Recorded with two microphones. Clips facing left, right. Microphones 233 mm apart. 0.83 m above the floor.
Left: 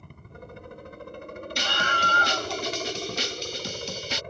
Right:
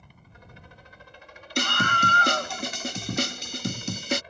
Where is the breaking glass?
No breaking glass in this recording.